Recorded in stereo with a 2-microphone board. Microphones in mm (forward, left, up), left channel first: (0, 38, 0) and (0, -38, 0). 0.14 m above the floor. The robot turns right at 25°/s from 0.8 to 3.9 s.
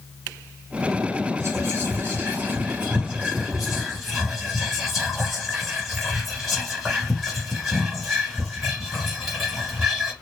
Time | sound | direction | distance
1.4 | whispering | 35° right (ahead or behind) | 1.6 m